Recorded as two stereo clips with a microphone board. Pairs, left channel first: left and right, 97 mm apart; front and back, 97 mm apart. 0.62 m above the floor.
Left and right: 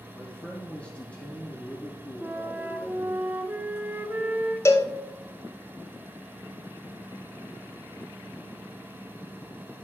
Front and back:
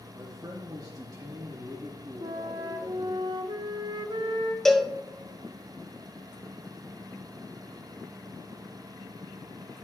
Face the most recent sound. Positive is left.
turn(degrees=85)